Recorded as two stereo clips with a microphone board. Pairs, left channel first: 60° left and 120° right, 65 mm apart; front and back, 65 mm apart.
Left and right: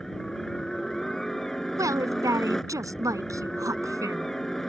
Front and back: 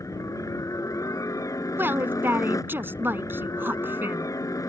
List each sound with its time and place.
0.0 s a helicopter: 25° right
1.8 s a woman speaking: 130° right